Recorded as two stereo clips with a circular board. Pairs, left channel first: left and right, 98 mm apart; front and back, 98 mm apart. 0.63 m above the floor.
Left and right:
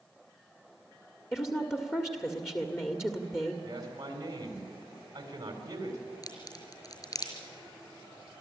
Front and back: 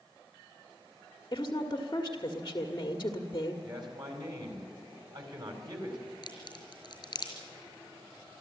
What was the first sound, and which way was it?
A woman speaking, 35° left.